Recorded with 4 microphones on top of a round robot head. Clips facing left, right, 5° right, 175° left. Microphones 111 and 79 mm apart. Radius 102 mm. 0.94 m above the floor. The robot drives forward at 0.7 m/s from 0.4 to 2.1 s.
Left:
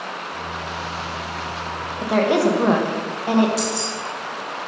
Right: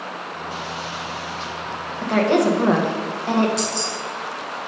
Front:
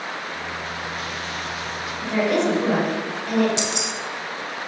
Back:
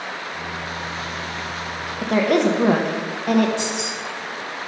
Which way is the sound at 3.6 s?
5° left.